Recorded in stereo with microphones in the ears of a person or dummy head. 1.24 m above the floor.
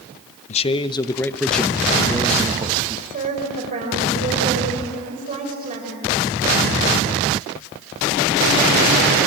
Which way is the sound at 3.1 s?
35° right (ahead or behind).